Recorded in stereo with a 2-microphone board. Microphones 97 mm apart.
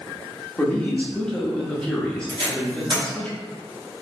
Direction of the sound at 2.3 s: 55° right (ahead or behind).